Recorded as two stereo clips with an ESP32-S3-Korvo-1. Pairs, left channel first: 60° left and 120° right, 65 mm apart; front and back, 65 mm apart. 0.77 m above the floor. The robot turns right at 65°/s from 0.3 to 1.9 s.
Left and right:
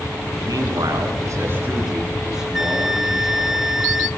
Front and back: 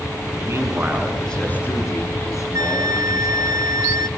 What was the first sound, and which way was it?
A man speaking, 135° right.